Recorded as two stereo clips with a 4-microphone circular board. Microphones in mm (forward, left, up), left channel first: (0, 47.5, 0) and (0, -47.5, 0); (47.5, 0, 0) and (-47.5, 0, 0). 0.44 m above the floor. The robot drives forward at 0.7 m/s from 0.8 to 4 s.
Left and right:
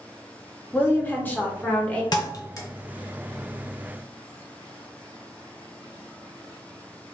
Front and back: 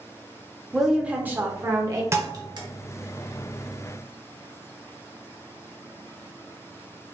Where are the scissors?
I don't hear scissors.